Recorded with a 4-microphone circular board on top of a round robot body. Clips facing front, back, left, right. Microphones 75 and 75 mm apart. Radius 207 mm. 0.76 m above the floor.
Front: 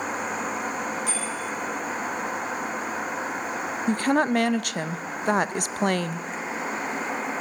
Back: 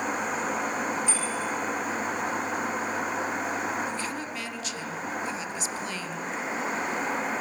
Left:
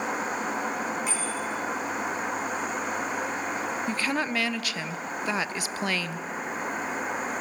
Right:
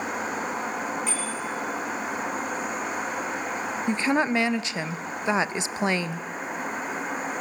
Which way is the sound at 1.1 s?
Straight ahead.